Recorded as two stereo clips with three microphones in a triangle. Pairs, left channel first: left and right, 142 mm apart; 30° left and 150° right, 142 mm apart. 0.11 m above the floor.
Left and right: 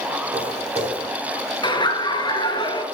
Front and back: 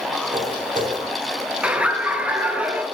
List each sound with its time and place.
0.3 s footsteps: 130° right, 4.5 m
1.6 s laughter: 135° left, 1.6 m